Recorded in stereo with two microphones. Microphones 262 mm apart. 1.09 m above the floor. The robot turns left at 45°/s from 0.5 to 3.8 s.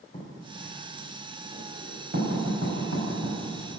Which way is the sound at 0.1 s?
35° left (ahead or behind).